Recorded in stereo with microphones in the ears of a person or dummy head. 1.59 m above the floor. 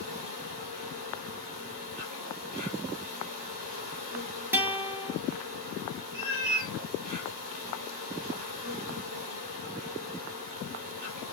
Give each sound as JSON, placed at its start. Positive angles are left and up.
{"t": 0.0, "sound": "an insect", "side_deg": -35, "distance_m": 1.6}
{"t": 4.5, "sound": "a guitar", "side_deg": -10, "distance_m": 0.8}
{"t": 6.1, "sound": "a cat meowing", "side_deg": 45, "distance_m": 2.0}